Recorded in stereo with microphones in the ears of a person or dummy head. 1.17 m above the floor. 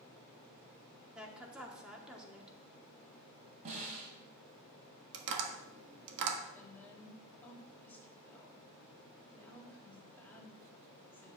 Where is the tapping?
60° right (ahead or behind), 1.4 m.